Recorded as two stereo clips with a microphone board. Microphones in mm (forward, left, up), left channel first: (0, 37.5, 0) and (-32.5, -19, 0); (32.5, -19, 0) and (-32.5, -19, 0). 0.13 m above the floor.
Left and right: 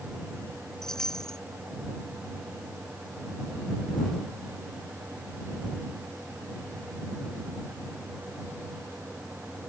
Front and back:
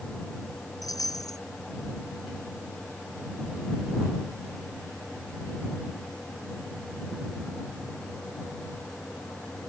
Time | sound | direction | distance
0.8 | a chime | 20° right | ?